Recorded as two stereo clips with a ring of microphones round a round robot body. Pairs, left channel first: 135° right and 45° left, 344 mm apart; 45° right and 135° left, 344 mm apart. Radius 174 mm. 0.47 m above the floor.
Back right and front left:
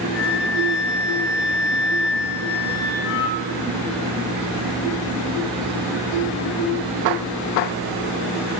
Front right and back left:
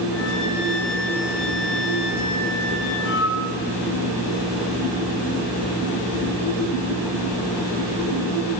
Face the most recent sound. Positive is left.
turn(degrees=-95)